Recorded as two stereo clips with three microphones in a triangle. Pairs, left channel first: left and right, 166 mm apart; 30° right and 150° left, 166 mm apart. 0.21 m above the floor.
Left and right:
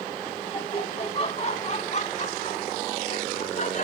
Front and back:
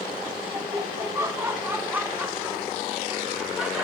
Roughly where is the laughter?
Left.